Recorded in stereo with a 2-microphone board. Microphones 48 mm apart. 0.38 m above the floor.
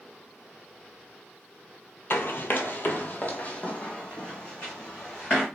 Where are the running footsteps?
60° left (ahead or behind), 0.6 m; by 5.5 s 20° left (ahead or behind), 1.8 m.